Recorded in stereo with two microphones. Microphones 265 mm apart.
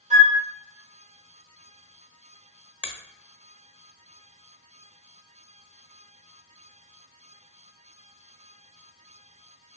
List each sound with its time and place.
0.1 s a flute: 25° right (ahead or behind), 1.2 m
2.8 s a finger snap: 5° right (ahead or behind), 0.7 m